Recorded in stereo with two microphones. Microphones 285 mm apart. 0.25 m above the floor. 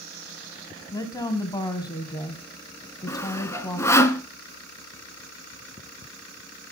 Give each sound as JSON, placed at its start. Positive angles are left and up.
{"t": 0.9, "sound": "a woman speaking", "side_deg": 15, "distance_m": 2.0}
{"t": 3.1, "sound": "sawing", "side_deg": 10, "distance_m": 1.1}